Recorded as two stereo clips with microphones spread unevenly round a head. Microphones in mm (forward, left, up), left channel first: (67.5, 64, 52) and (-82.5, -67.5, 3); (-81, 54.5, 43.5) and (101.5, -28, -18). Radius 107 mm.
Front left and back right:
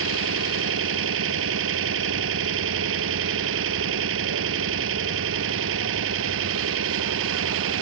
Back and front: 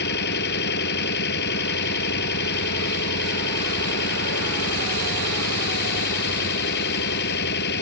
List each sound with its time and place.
0.0 s an engine running: 165° right